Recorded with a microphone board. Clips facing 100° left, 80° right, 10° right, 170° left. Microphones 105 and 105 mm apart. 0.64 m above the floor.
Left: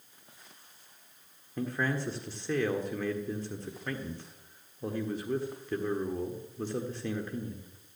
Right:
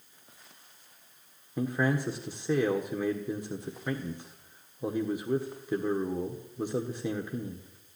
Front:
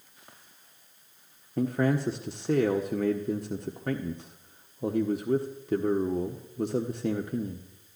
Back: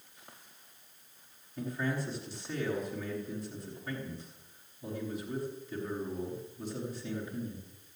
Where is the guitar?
I don't hear a guitar.